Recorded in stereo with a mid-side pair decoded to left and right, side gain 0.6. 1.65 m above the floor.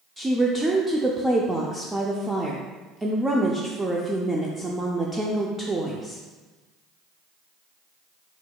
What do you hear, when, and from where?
0.2 s a woman speaking: 15° right, 0.6 m